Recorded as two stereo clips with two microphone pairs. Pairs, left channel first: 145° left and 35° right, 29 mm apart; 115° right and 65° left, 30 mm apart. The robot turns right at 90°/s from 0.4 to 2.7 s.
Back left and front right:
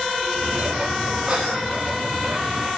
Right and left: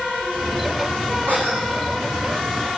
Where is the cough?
90° right, 5.5 m; by 2.7 s 40° left, 5.5 m.